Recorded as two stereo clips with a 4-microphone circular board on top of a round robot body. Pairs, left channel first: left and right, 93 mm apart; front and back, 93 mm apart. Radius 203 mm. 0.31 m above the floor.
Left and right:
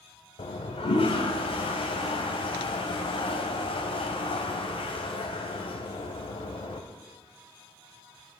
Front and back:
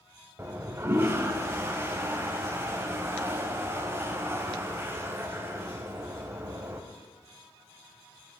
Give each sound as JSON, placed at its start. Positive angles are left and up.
{"t": 0.4, "sound": "a toilet flushing", "azimuth_deg": 115, "distance_m": 0.9}